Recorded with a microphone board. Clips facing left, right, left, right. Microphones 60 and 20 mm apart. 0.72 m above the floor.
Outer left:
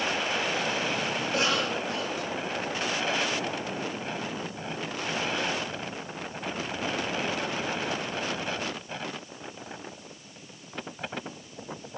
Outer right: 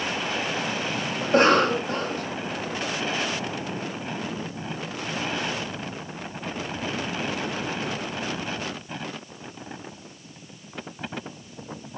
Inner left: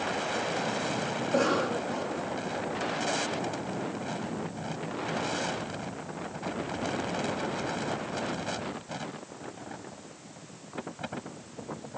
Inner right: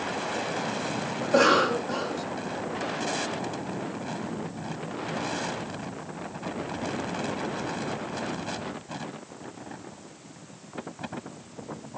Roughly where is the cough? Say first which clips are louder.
Outer right 12 dB, inner right 7 dB; right.